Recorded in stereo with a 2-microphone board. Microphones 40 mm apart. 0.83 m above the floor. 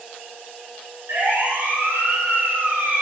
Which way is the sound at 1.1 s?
80° right.